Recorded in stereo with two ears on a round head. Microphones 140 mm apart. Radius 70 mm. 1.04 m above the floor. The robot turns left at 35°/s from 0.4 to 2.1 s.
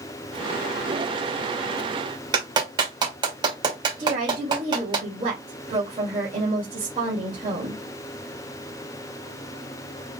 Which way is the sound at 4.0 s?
35° right (ahead or behind).